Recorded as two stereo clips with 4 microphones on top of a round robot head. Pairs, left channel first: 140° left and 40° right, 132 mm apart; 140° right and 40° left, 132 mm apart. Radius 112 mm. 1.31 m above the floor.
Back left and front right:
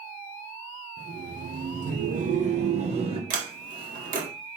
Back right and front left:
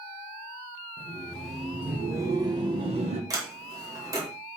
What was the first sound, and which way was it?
Laughter, 60° right.